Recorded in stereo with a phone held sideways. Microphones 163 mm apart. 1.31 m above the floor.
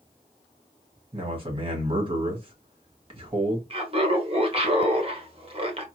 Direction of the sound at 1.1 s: 35° right (ahead or behind).